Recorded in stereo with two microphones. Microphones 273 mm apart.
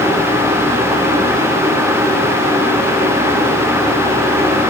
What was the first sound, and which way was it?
Only background noise.